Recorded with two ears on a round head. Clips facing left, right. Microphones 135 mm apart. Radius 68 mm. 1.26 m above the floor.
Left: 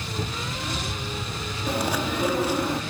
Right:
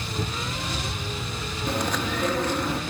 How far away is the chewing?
About 0.7 m.